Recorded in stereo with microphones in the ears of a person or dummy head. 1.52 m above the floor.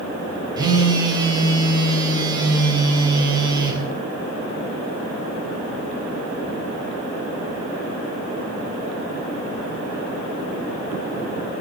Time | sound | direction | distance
0.6 | a phone buzzing | 20° right (ahead or behind) | 3.5 m